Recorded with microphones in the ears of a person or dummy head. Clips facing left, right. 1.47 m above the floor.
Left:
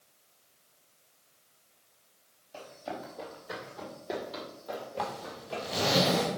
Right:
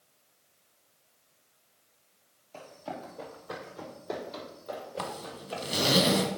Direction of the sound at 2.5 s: 15° left (ahead or behind).